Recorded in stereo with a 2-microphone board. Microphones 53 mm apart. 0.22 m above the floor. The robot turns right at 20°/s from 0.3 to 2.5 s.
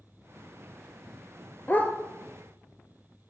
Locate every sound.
1.7 s a dog barking: 30° left (ahead or behind), 1.3 m; by 1.9 s 25° left (ahead or behind), 1.3 m